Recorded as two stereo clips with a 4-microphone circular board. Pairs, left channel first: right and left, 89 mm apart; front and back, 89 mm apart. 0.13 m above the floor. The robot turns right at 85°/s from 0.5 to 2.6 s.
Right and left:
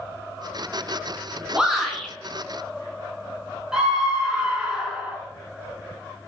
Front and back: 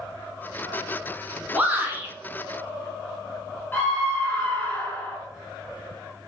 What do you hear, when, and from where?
1.5 s a shout: 155° left, 1.1 m; by 2.1 s 155° right, 1.1 m
3.7 s a scream: 20° left, 1.4 m